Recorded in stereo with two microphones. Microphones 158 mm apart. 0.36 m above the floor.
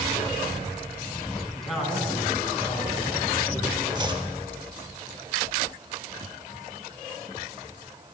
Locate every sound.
1.5 s a man speaking: 5° left (ahead or behind), 3 m; by 3.9 s 30° right (ahead or behind), 4 m
4.0 s chopping: 30° right (ahead or behind), 0.8 m